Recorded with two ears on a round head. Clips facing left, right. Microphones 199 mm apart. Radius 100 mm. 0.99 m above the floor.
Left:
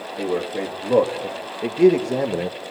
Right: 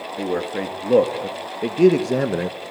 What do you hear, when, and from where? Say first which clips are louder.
0.2 s a man speaking: even; 10° right (ahead or behind), 2 m